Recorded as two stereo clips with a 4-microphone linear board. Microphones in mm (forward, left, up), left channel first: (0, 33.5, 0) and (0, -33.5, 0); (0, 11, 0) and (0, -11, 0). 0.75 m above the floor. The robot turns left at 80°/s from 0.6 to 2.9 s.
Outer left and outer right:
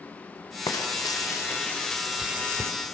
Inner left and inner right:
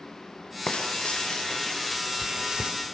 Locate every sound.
0.7 s frying: 110° left, 3.5 m; by 2.7 s 55° right, 3.5 m